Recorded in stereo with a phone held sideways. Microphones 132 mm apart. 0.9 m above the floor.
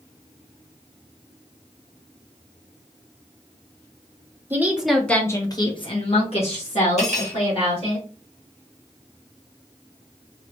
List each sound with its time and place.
4.5 s a woman speaking: 15° right (ahead or behind), 1.0 m; by 8.0 s 55° left (ahead or behind), 2.5 m
7.0 s cutlery clinking: 60° left (ahead or behind), 1.3 m